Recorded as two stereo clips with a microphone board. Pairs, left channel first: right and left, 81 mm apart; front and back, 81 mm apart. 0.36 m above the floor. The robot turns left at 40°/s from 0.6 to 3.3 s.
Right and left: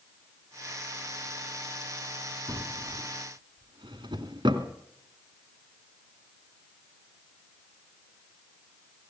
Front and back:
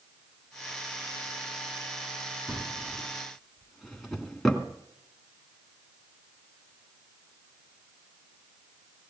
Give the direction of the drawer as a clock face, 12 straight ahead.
8 o'clock.